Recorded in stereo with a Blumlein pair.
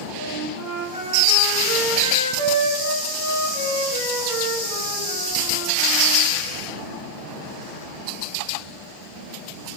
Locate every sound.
0.2 s a flute: 40° left, 2 m